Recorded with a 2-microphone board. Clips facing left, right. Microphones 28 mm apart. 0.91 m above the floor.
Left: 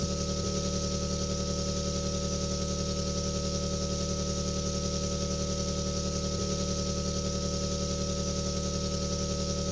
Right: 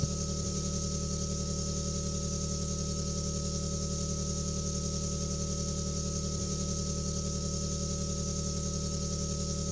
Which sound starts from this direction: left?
An engine running, at 0.0 s.